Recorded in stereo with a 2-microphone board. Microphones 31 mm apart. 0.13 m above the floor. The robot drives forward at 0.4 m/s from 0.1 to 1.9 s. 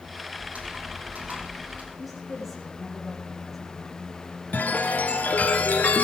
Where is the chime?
60° left (ahead or behind), 2.5 m.